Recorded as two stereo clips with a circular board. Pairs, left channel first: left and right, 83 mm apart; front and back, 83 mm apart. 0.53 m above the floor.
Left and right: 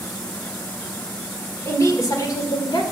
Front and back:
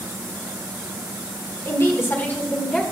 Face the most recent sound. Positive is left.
turn(degrees=75)